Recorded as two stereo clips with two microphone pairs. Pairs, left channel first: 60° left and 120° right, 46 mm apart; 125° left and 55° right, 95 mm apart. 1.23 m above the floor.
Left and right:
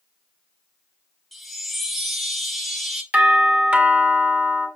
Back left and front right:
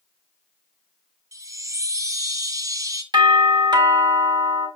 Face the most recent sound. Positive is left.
turn(degrees=-75)